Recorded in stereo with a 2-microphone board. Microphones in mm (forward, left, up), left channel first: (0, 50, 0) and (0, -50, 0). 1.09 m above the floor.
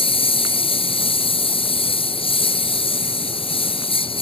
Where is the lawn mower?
65° left (ahead or behind).